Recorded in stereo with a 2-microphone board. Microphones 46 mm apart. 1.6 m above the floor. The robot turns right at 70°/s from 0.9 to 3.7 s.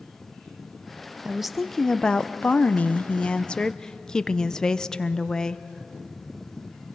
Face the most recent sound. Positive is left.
turn(degrees=150)